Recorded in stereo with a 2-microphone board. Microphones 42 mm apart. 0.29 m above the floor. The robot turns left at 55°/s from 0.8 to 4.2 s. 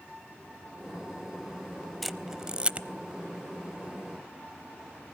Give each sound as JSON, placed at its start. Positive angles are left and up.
{"t": 2.0, "sound": "a camera shutter", "side_deg": 5, "distance_m": 0.6}